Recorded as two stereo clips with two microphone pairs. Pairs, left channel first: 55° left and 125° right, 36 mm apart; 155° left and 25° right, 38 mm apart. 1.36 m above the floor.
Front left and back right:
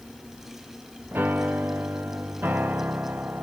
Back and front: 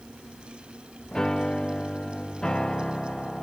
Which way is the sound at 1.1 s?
135° right.